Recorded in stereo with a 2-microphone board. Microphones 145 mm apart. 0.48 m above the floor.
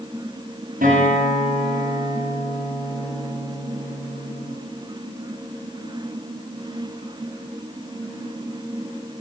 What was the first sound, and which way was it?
A guitar, 80° right.